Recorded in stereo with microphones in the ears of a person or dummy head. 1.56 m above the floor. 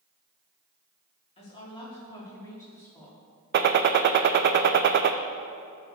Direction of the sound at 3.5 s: 55° right (ahead or behind).